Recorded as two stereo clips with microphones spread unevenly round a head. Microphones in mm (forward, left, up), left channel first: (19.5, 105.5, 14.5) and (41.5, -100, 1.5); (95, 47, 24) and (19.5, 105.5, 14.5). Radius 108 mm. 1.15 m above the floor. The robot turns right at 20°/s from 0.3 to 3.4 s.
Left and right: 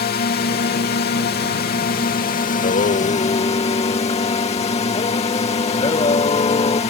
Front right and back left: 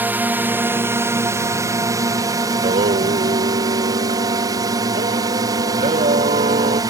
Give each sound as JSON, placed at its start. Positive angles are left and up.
{"t": 0.0, "sound": "a drone", "azimuth_deg": 85}
{"t": 2.5, "sound": "singing", "azimuth_deg": 145}